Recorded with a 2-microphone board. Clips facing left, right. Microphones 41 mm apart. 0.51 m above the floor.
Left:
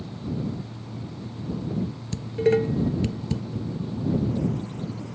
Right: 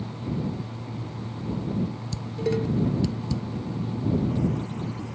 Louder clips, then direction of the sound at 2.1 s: Left 7 dB; 40° left (ahead or behind).